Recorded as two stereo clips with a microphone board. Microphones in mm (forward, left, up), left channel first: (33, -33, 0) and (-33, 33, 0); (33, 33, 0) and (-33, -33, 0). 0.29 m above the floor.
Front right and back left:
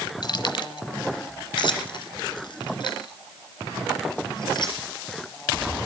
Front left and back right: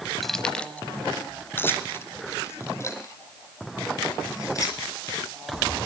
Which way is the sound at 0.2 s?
45° right.